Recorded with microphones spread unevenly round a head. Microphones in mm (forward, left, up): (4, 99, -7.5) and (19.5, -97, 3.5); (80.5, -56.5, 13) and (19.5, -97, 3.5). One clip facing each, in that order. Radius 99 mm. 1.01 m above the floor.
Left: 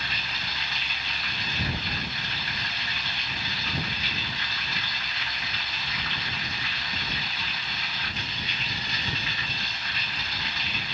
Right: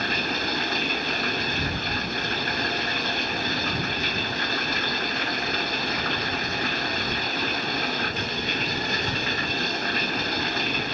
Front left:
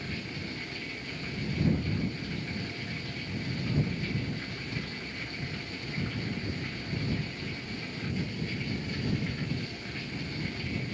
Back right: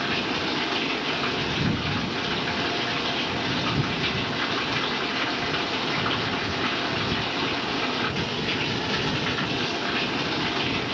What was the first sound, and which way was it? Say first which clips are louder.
Running water: right 12 dB, back right 12 dB; 135° right.